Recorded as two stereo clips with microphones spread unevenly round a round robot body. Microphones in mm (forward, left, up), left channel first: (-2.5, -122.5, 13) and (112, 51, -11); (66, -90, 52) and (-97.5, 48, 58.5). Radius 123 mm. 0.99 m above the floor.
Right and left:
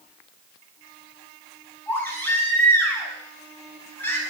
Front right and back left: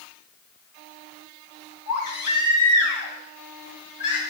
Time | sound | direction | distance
1.9 | a baby crying | 40° right | 5 m